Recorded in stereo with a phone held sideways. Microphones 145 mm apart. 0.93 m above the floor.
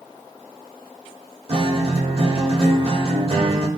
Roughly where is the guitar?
Right.